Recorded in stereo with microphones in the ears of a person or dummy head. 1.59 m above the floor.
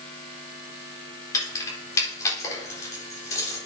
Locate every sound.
1.3 s keys jangling: 20° left (ahead or behind), 4 m